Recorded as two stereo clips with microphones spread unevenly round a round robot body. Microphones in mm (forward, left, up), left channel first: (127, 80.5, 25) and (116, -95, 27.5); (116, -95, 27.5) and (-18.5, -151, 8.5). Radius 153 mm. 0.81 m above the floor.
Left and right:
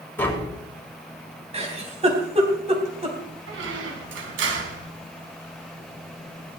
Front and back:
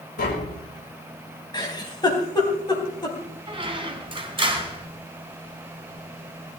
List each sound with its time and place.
0.2 s tapping: 10° left, 4.5 m
1.5 s a giggle: 40° right, 3.5 m
3.5 s a squeak: 100° right, 3.5 m